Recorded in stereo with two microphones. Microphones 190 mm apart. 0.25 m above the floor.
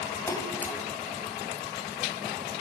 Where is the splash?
15° left (ahead or behind), 1.4 m.